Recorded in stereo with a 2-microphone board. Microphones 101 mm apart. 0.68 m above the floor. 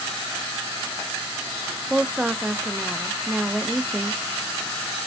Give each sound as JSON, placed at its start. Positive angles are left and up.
{"t": 1.9, "sound": "a woman speaking", "side_deg": -10, "distance_m": 0.5}